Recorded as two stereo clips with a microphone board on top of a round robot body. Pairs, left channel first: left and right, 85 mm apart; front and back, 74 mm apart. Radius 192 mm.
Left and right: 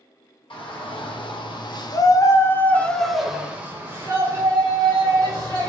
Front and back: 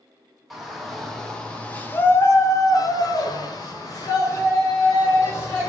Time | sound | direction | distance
0.5 | a shout | 90° left | 1.4 m